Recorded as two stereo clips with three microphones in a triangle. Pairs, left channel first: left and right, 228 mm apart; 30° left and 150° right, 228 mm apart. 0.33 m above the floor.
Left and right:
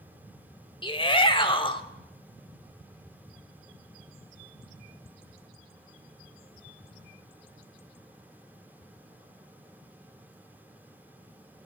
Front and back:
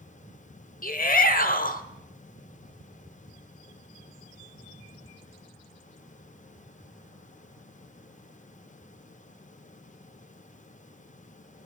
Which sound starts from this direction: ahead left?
A shout, at 0.8 s.